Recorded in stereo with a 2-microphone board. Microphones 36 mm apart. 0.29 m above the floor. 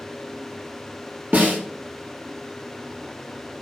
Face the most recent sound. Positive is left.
turn(degrees=-50)  # may be behind; listen again after turning